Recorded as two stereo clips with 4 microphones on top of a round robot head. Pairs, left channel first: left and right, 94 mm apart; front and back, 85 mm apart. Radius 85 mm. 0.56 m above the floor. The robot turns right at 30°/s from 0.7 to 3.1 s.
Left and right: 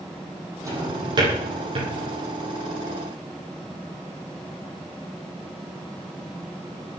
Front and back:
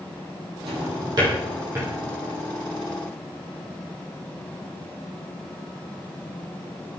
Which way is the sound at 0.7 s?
145° right.